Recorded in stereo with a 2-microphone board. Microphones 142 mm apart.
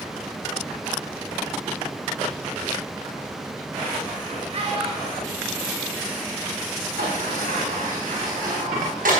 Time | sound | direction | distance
4.5 | a child speaking | 45° right (ahead or behind) | 0.9 m
7.0 | a sliding door | 90° right | 4 m